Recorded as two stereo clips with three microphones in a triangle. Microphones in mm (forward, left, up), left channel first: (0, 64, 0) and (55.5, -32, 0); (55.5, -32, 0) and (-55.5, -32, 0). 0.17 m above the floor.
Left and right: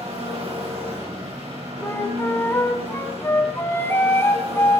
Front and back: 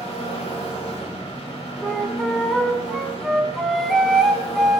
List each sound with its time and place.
0.0 s an engine running: 35° right, 7.5 m
1.8 s a flute: 85° left, 1.6 m